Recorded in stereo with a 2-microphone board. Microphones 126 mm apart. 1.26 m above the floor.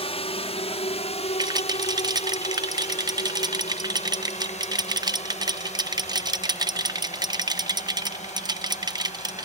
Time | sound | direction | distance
0.0 | a drone | 50° left (ahead or behind) | ?
1.4 | a rattle | 35° right (ahead or behind) | ?